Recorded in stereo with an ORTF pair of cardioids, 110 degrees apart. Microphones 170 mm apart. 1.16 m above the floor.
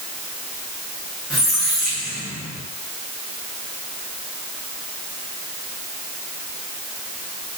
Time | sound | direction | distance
1.3 | a squeak | straight ahead | 1.2 m